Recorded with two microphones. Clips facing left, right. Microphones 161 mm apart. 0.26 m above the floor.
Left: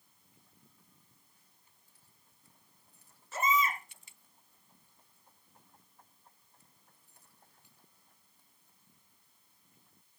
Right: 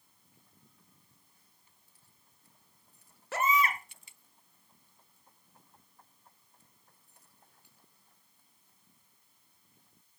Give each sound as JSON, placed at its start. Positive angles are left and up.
{"t": 3.3, "sound": "a baby crying", "side_deg": -75, "distance_m": 1.9}